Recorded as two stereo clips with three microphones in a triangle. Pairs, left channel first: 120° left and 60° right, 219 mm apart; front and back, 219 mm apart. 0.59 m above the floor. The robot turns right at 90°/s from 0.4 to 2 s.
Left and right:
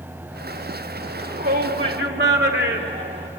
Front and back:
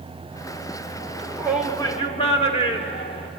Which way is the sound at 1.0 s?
145° right.